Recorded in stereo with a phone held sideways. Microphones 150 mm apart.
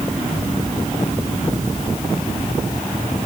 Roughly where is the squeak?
No squeak in this recording.